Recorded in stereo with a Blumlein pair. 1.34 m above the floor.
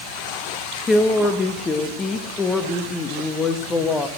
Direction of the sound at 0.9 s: 15° left.